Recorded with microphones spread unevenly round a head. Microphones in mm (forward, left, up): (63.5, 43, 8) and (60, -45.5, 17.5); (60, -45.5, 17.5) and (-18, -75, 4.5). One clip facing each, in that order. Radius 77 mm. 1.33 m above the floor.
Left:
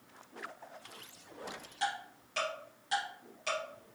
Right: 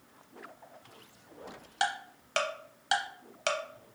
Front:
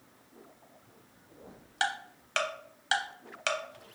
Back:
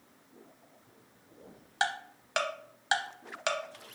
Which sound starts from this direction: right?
Ticking, at 1.8 s.